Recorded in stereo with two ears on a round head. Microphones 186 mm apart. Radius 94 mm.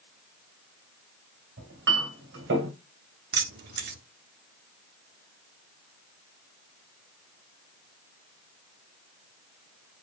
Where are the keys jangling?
50° right (ahead or behind), 1.0 m.